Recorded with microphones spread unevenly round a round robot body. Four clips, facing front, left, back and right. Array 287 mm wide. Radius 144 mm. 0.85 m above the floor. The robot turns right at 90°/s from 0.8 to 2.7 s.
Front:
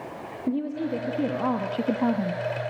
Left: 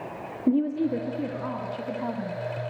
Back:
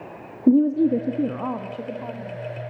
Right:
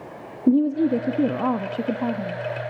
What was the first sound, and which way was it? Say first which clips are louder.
A woman speaking: right 5 dB, back 11 dB; 150° right.